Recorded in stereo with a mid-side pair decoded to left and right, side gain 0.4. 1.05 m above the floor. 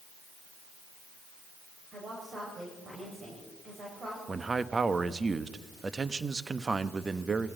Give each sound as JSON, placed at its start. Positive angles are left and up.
{"t": 1.9, "sound": "a woman speaking", "azimuth_deg": -45, "distance_m": 5.0}
{"t": 4.3, "sound": "a man speaking", "azimuth_deg": -35, "distance_m": 1.0}